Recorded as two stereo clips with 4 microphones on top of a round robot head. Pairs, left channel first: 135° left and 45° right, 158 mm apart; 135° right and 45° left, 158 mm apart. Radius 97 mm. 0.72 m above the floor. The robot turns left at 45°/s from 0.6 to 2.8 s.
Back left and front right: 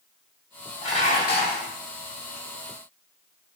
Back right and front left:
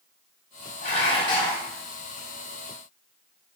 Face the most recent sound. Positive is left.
turn(degrees=95)